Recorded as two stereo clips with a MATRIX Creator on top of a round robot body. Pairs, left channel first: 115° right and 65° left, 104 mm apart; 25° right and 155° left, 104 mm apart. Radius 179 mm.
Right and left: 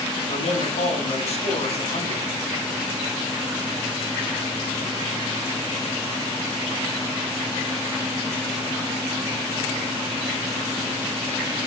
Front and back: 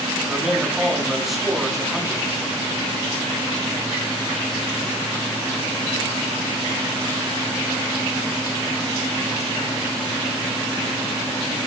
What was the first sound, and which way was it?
A man speaking, 115° right.